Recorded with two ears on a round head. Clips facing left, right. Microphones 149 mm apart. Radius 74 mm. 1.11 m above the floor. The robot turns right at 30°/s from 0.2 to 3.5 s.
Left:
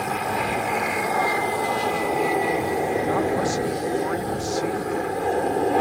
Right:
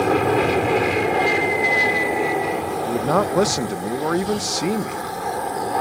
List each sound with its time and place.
0.0 s an aircraft: 65° right; by 5.8 s 35° left
2.9 s a man speaking: 75° right (ahead or behind); by 5.0 s 65° right (ahead or behind)